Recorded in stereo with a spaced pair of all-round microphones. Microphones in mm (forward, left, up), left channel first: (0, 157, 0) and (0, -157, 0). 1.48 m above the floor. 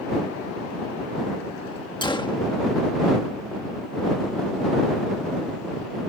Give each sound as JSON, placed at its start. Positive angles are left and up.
{"t": 2.0, "sound": "a gunshot", "side_deg": 15}